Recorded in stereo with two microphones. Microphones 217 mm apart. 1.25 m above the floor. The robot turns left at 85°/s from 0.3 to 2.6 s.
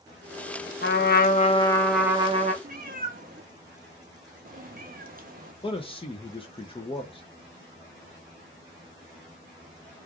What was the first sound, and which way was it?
A trumpet, 95° left.